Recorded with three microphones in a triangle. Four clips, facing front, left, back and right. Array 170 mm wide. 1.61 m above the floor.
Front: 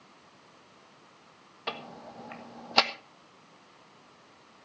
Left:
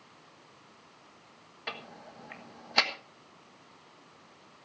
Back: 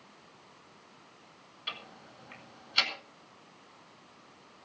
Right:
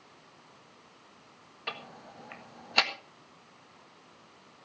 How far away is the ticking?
About 1.4 m.